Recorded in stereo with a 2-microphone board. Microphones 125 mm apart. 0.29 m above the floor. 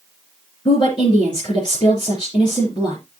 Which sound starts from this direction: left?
A woman speaking, at 0.7 s.